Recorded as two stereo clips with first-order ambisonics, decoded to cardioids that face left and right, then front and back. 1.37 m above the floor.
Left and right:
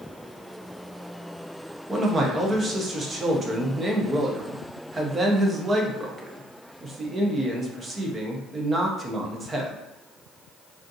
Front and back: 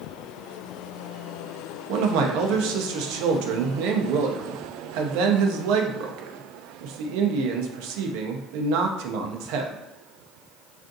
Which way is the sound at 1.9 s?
165° right.